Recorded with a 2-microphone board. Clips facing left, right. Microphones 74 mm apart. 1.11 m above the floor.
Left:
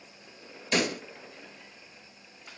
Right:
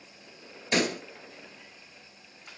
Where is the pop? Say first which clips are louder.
Right 1 dB; 20° right (ahead or behind), 2.5 m.